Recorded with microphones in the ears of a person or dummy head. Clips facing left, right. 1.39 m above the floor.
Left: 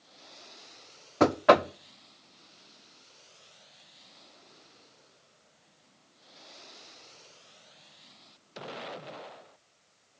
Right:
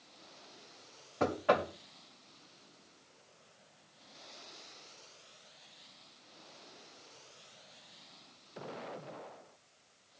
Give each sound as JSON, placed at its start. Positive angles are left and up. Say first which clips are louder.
{"t": 1.2, "sound": "knocking", "louder": "left 9 dB", "side_deg": 80, "distance_m": 0.6}